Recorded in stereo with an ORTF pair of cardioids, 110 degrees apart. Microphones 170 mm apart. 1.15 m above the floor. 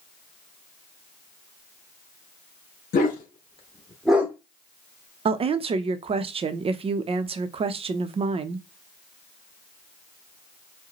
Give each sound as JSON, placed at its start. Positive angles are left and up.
{"t": 2.9, "sound": "a dog barking", "azimuth_deg": 65, "distance_m": 2.0}
{"t": 5.2, "sound": "a woman speaking", "azimuth_deg": -35, "distance_m": 0.7}